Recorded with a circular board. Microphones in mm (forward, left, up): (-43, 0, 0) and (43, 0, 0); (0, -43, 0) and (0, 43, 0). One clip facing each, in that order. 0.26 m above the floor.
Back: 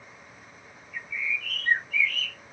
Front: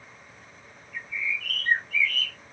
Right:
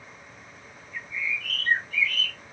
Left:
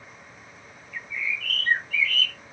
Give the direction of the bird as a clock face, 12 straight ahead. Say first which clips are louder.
Even, even; 1 o'clock.